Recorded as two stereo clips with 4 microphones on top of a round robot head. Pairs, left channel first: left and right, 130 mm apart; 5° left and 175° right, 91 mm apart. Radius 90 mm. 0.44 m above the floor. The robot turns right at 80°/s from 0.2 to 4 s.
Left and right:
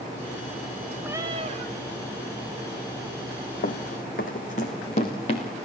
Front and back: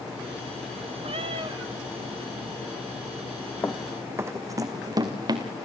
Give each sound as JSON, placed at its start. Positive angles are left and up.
{"t": 1.0, "sound": "a cat meowing", "azimuth_deg": -170, "distance_m": 1.0}
{"t": 3.6, "sound": "running footsteps", "azimuth_deg": 70, "distance_m": 1.4}